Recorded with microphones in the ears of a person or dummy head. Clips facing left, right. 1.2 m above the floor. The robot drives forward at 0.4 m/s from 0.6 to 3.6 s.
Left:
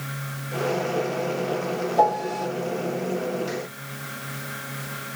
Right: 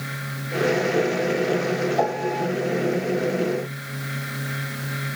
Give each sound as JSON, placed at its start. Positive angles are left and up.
{"t": 2.0, "sound": "a piano", "side_deg": 40, "distance_m": 1.9}